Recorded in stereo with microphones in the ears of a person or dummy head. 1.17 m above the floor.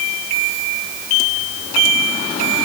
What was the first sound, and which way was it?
Only background noise.